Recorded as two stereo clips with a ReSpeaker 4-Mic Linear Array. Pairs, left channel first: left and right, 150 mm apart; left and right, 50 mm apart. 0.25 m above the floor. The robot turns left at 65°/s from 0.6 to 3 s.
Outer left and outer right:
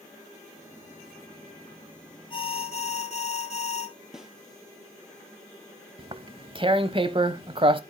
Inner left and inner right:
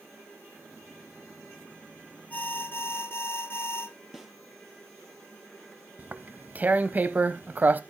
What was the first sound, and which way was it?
An alarm, 130° left.